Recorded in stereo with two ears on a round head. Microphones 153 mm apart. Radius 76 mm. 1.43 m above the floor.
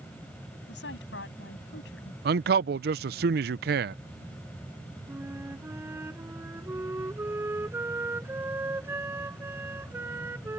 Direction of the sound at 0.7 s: 80° left.